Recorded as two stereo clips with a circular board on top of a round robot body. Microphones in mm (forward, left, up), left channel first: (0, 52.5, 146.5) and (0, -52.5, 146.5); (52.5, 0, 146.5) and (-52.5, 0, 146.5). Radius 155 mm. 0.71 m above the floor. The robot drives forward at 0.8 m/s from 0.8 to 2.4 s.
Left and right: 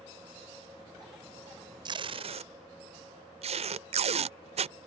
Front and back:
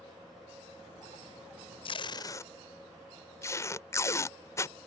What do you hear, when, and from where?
1.9 s tape being pulled: 40° right; by 4.8 s 65° right